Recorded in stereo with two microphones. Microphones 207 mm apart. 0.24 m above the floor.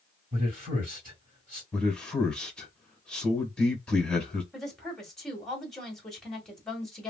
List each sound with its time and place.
0.3 s a man speaking: 45° right (ahead or behind), 2.5 m
1.7 s a man speaking: 5° left (ahead or behind), 1.6 m
4.5 s a woman speaking: centre (ahead or behind), 1.7 m